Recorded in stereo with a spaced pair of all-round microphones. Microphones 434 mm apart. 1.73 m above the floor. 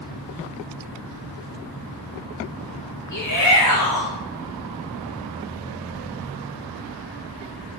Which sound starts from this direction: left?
A shout, at 3.1 s.